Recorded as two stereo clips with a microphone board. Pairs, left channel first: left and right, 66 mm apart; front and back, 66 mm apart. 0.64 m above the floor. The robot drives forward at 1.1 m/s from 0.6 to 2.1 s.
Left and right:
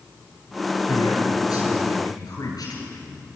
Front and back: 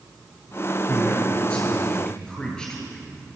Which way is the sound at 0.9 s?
70° left.